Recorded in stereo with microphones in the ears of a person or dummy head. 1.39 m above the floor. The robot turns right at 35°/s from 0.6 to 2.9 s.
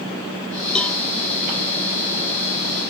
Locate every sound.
0.8 s a cowbell: 5° left (ahead or behind), 0.9 m; by 1.0 s 10° left (ahead or behind), 0.9 m